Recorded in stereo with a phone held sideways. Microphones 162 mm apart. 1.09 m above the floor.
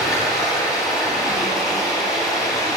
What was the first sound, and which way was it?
Running water, centre (ahead or behind).